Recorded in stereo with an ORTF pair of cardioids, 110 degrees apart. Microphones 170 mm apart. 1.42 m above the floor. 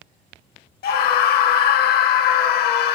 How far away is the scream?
About 1.2 m.